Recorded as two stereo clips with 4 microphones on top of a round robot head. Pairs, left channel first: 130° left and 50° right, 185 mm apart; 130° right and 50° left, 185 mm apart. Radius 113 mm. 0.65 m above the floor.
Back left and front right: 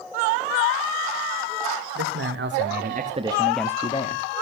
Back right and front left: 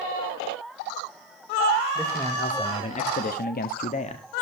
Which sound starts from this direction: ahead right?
A man speaking, at 1.9 s.